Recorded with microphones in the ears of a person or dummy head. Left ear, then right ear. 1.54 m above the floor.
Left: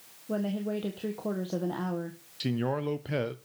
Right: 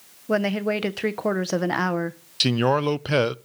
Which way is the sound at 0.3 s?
60° right (ahead or behind).